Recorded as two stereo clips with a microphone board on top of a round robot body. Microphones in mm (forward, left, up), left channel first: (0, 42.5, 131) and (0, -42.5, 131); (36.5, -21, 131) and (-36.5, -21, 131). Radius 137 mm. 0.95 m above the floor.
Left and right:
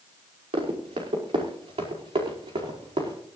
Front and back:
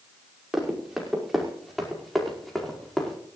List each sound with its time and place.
0.5 s running footsteps: 95° right, 6 m; by 3.2 s 85° right, 5 m